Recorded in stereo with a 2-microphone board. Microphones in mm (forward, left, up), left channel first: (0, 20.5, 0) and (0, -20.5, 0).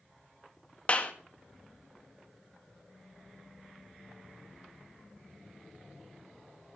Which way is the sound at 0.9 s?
30° left (ahead or behind).